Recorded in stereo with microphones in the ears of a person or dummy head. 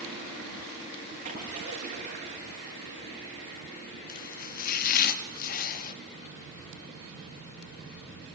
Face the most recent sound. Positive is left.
turn(degrees=50)  # may be behind; listen again after turning